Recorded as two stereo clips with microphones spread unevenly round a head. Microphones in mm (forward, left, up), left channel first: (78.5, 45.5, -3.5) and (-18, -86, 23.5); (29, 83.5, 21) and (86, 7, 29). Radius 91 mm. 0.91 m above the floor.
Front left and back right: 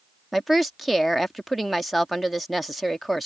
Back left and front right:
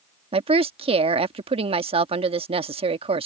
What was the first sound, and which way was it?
A woman speaking, 35° right.